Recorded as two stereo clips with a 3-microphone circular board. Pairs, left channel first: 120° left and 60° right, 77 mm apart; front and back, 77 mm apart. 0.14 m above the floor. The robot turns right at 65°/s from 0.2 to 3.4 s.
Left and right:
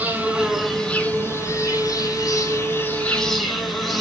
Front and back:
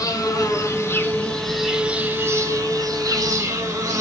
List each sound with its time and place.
0.0 s an insect: 5° left, 3 m; by 4.0 s 150° right, 3 m